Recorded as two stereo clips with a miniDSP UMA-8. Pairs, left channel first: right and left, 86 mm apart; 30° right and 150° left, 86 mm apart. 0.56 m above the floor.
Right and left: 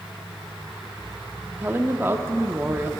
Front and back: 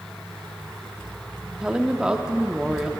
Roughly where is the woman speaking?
Left.